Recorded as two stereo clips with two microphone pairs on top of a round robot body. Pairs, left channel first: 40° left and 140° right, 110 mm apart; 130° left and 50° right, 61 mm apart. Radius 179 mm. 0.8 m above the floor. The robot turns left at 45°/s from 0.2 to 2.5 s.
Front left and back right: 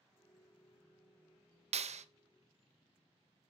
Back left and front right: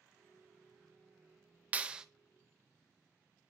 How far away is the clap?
About 0.5 m.